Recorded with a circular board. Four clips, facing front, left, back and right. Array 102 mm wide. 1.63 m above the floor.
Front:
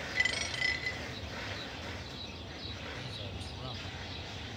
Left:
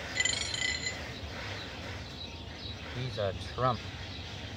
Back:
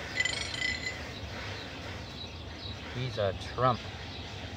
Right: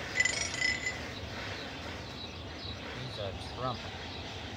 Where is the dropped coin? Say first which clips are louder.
Right 4 dB, front 1 dB; 75° right.